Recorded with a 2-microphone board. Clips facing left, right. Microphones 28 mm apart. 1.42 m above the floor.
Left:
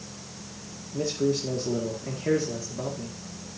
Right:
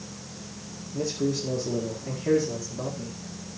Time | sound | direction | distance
0.9 | a man speaking | 20° left (ahead or behind) | 1.8 m